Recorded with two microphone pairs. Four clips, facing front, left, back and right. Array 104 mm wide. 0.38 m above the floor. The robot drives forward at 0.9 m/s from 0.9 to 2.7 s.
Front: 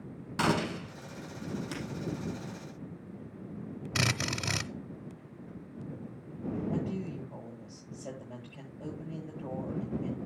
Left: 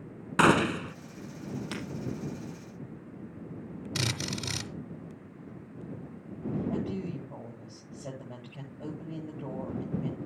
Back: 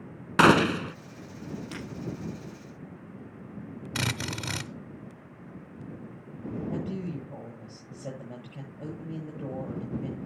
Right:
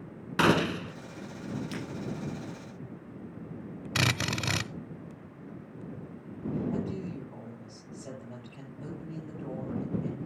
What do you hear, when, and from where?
0.4 s a gunshot: 175° left, 0.6 m
1.7 s breaking glass: 90° left, 5.5 m
4.0 s a drill: 95° right, 0.7 m
6.7 s a woman speaking: 145° left, 10 m